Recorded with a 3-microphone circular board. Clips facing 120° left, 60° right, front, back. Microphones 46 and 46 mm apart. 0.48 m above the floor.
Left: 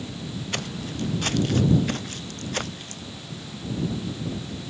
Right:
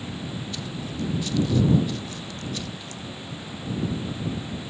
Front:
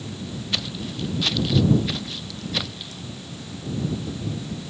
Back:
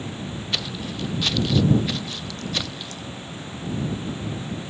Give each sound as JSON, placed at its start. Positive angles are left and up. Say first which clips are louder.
{"t": 0.5, "sound": "footsteps", "louder": "left 1 dB, even", "azimuth_deg": 90}